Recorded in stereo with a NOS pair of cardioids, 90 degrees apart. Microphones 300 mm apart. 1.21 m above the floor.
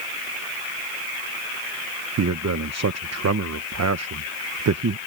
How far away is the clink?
No clink in this recording.